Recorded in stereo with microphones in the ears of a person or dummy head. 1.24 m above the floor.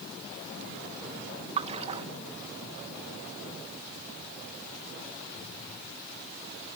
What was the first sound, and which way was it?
A splash, 30° right (ahead or behind).